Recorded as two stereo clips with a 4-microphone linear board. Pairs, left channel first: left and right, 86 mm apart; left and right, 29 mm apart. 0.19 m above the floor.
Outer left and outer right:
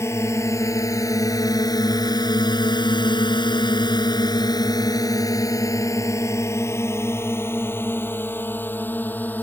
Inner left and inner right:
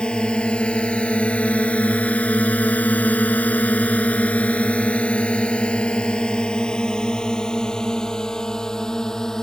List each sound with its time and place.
0.0 s a drone: 30° left (ahead or behind); by 9.4 s 20° left (ahead or behind)